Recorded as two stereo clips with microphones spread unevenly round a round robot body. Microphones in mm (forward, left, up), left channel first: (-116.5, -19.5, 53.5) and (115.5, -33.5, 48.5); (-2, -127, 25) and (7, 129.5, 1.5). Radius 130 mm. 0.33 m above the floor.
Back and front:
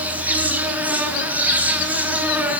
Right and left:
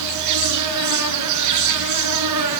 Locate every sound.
0.0 s an insect: 80° left, 4 m